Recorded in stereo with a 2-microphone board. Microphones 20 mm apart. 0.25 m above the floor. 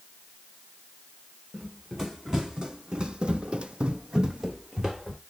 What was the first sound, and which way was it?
Running footsteps, 30° right (ahead or behind).